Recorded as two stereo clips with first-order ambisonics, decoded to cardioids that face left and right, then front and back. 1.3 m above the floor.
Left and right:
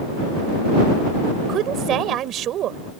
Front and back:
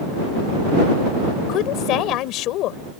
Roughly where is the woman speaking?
Ahead right.